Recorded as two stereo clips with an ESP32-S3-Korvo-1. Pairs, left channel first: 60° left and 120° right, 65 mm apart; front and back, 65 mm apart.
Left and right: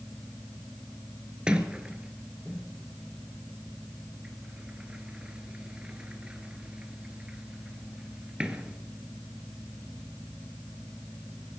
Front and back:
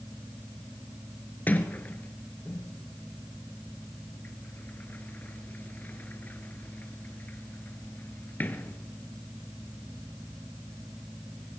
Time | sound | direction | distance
1.5 | a sliding door | 50° right | 1.1 m